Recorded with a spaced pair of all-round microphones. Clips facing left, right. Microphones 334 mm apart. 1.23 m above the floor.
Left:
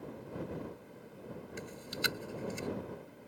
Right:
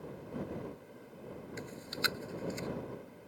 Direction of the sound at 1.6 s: 45° left (ahead or behind).